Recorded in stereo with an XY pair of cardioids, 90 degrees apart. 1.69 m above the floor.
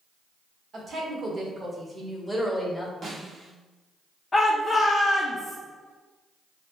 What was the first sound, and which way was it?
A woman speaking, 50° right.